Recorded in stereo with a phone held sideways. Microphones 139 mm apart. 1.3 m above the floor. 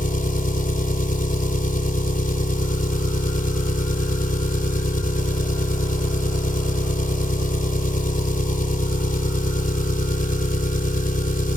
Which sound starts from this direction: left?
An engine running, at 0.0 s.